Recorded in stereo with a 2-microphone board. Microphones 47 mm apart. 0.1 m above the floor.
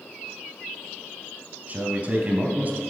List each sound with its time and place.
1.7 s a man speaking: 40° right (ahead or behind), 2 m